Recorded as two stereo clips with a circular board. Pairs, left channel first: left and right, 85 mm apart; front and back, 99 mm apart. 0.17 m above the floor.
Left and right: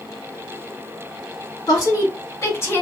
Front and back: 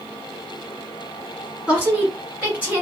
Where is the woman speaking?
100° left, 2 m; by 2.8 s 120° left, 1.6 m.